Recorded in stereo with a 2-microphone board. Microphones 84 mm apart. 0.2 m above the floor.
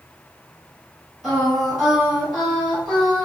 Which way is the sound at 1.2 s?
Centre (ahead or behind).